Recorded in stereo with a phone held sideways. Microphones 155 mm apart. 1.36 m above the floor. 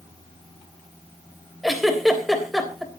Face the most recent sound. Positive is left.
turn(degrees=0)  # may be behind; listen again after turning